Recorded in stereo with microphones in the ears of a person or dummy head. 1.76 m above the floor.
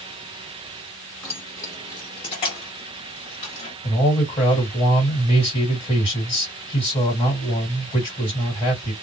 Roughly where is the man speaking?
Left.